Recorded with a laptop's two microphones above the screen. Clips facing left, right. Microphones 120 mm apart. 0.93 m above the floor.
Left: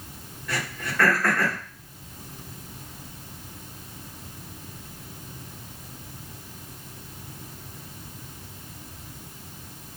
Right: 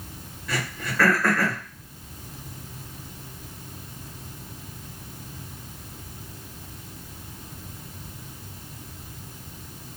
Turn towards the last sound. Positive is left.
turn(degrees=-10)  # may be behind; listen again after turning